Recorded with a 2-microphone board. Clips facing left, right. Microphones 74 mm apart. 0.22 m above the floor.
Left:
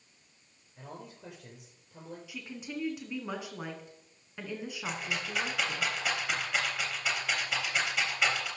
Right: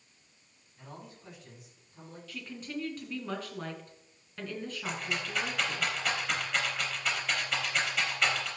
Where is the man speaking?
70° left (ahead or behind), 6 m.